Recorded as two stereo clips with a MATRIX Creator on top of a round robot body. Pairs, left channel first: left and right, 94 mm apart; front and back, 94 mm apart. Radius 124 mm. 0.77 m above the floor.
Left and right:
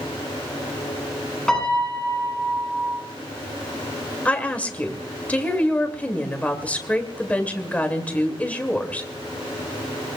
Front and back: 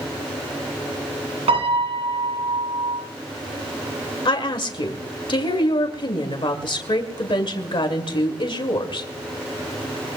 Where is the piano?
175° left, 8.5 m.